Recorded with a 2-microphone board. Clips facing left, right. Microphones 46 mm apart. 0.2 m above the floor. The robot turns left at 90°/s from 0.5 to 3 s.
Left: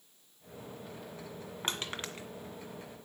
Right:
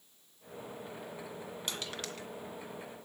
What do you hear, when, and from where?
1.6 s crushing: 45° left (ahead or behind), 2 m; by 2.3 s 20° left (ahead or behind), 2 m